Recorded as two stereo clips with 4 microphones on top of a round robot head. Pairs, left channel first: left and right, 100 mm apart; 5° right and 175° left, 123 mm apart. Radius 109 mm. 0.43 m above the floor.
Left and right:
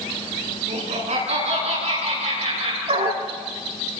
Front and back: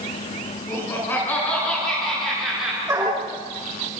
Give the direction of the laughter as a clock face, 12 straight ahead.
3 o'clock.